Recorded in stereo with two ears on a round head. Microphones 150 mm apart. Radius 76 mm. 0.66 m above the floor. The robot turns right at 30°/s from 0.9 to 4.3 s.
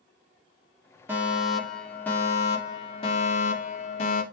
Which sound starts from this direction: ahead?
A fire alarm, at 1.1 s.